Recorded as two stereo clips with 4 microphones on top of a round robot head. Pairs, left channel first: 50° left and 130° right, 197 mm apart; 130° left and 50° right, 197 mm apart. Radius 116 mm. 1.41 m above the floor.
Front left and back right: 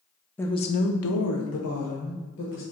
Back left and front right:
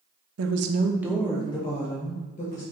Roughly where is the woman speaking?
Ahead right.